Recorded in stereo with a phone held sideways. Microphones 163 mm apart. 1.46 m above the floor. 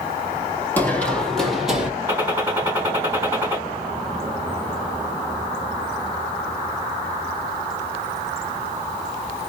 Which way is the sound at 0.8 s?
10° left (ahead or behind).